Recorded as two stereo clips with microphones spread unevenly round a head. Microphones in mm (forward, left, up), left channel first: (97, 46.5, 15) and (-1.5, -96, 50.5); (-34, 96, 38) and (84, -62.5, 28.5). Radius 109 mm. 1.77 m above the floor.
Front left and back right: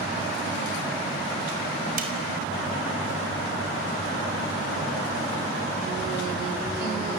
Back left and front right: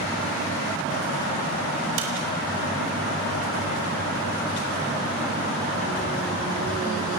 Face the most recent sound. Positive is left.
turn(degrees=-90)